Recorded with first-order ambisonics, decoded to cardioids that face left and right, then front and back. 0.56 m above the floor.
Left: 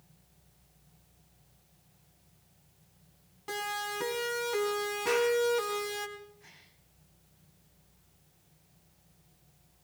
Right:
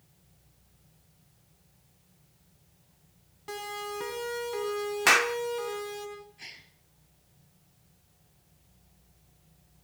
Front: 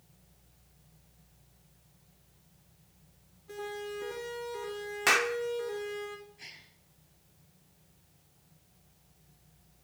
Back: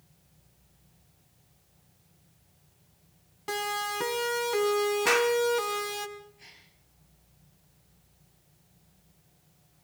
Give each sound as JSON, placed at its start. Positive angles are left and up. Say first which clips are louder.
{"t": 3.5, "sound": "a siren", "louder": "left 2 dB, back 9 dB", "azimuth_deg": 175, "distance_m": 4.5}
{"t": 5.1, "sound": "a clap", "louder": "right 6 dB, even", "azimuth_deg": -80, "distance_m": 0.7}
{"t": 6.4, "sound": "a gasp", "louder": "right 10 dB, front 4 dB", "azimuth_deg": -70, "distance_m": 3.5}